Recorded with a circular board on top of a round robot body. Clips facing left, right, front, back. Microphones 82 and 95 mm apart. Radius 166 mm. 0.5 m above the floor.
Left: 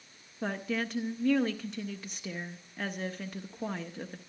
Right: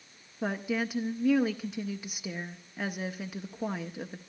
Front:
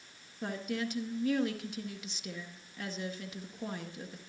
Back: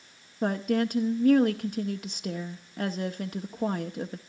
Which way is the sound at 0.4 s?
170° right.